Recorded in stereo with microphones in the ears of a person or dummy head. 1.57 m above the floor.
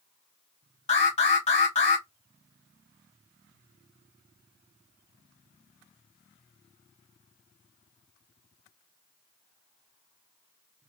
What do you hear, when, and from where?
0.9 s an alarm: 40° left (ahead or behind), 1.3 m